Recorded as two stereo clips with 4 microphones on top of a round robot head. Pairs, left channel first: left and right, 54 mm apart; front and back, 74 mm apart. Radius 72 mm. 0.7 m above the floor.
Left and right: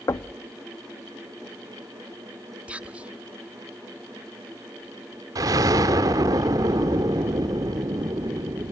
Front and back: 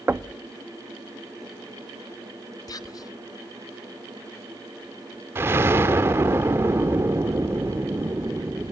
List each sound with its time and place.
0.1 s knocking: 115° left, 0.5 m
2.7 s whispering: 25° right, 1.5 m
5.3 s an explosion: 115° right, 0.9 m